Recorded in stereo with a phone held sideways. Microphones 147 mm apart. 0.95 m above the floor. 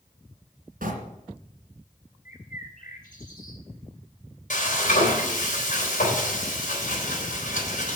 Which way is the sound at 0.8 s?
75° right (ahead or behind).